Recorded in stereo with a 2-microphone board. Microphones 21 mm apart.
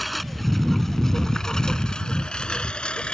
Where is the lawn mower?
Centre (ahead or behind); by 3.1 s 60° left (ahead or behind).